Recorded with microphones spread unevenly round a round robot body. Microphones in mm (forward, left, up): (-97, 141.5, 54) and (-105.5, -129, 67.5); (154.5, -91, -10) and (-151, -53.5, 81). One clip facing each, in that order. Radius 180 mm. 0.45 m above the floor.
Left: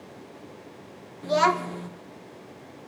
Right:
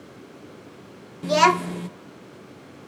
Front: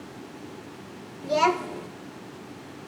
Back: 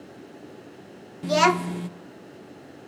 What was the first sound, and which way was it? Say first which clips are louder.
A child speaking: right 3 dB, back 2 dB; 125° right.